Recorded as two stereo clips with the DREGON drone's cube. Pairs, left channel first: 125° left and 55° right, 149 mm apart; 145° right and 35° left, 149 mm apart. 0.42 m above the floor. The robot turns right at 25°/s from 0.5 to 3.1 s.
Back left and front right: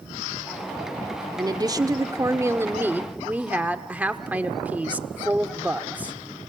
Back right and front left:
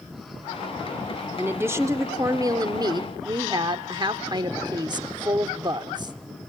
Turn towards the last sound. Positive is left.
turn(degrees=15)